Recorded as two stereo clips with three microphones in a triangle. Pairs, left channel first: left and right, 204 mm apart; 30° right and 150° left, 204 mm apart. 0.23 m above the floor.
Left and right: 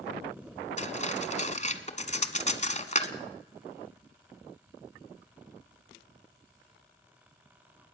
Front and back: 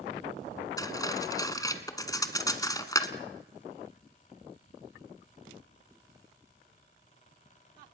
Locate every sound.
0.8 s cutlery clinking: 40° left, 1.3 m